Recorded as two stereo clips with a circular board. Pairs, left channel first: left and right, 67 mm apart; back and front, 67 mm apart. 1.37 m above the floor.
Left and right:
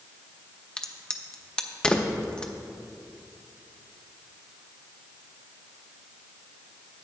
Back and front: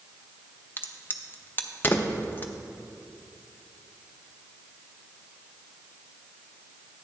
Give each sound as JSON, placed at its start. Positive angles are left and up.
{"t": 0.8, "sound": "a crack", "azimuth_deg": 155, "distance_m": 0.6}